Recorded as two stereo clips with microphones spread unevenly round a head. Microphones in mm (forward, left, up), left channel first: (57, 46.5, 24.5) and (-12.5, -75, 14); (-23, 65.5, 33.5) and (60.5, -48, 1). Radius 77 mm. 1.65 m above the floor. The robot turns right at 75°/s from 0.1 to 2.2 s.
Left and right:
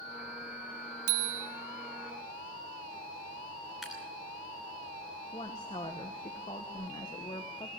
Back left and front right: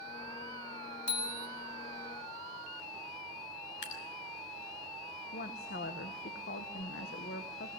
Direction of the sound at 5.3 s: 120° left.